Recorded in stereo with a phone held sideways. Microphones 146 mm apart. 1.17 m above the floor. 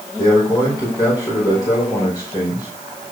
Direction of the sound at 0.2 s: 25° left (ahead or behind).